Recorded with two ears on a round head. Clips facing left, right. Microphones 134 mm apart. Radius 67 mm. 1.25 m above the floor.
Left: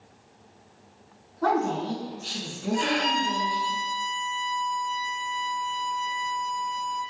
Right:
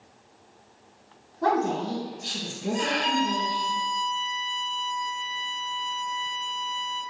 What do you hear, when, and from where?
1.4 s a woman speaking: 15° right (ahead or behind), 1.3 m
2.7 s a violin: 35° left (ahead or behind), 0.8 m